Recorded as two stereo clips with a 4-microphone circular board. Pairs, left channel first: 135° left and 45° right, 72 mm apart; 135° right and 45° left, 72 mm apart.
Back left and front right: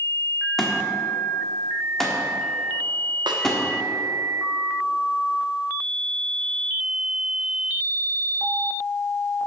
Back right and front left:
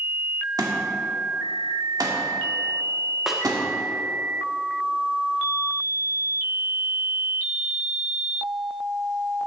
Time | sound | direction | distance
0.6 | a thud | 50° left | 1.4 m
3.3 | a snare drum | 40° right | 1.1 m